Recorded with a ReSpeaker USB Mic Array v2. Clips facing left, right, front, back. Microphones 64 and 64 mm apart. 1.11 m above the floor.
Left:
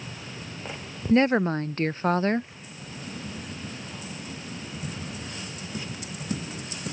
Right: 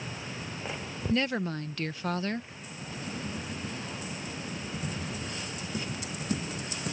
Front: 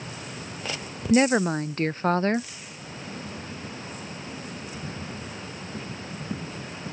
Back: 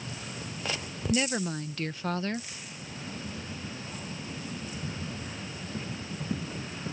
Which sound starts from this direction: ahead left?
A woman speaking, at 1.1 s.